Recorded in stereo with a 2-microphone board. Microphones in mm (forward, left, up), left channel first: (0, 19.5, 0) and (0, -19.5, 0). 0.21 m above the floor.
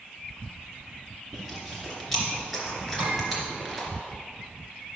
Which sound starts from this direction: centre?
Chewing, at 1.3 s.